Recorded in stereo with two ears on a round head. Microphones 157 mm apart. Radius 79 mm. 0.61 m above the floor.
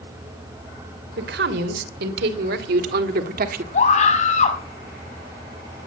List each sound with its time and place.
1.2 s a man speaking: 65° right (ahead or behind), 3 m; by 3.6 s 50° right (ahead or behind), 1.7 m
3.7 s a scream: 40° left (ahead or behind), 5.5 m